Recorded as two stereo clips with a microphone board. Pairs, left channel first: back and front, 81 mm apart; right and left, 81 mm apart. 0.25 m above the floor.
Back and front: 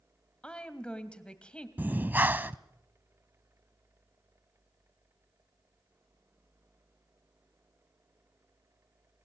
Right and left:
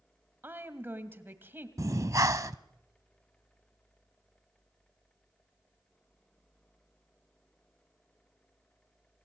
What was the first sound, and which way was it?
A woman speaking, 115° left.